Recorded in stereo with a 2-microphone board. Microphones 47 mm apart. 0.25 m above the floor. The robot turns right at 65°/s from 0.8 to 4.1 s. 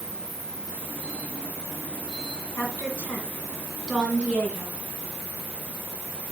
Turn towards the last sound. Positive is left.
turn(degrees=-20)  # may be behind; listen again after turning